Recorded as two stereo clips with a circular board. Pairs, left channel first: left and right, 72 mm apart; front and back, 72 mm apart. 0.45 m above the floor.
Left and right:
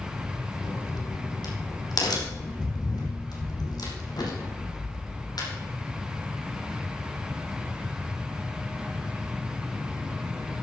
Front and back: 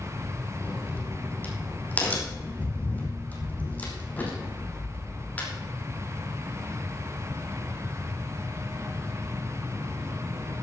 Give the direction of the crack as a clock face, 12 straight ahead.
10 o'clock.